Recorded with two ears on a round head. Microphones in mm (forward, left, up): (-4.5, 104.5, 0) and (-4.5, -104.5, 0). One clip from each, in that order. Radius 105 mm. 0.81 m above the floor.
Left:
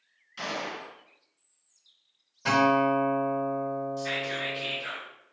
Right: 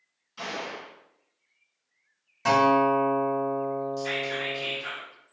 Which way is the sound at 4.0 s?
25° right (ahead or behind).